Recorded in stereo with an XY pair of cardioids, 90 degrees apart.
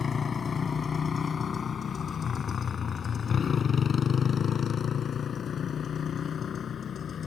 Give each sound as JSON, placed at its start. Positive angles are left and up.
{"t": 0.0, "sound": "a motorcycle", "azimuth_deg": 35}